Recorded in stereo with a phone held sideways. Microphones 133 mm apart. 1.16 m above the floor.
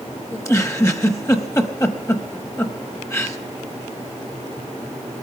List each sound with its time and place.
0.3 s a giggle: 25° left (ahead or behind), 1.0 m